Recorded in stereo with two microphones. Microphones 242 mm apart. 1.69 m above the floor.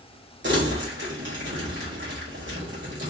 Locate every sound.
0.4 s crumpling: 50° right (ahead or behind), 1.9 m